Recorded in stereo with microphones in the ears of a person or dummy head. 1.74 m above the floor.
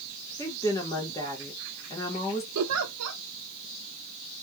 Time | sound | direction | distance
0.4 | a woman speaking | 15° left (ahead or behind) | 1.4 m
2.5 | a giggle | 85° right | 0.7 m